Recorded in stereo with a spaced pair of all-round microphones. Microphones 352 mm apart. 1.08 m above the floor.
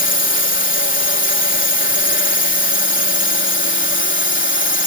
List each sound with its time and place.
0.0 s a drone: 30° left (ahead or behind)